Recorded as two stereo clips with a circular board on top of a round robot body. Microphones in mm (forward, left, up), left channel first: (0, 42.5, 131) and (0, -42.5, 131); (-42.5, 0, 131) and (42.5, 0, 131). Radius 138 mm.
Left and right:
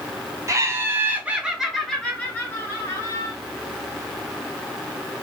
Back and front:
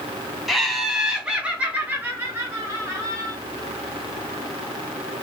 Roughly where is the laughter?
Right.